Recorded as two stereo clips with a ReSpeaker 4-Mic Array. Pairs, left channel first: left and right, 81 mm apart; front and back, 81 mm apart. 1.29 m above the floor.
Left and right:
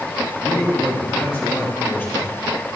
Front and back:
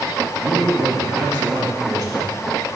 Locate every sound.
0.4 s a man speaking: 155° left, 2.5 m; by 2.3 s 150° left, 3.5 m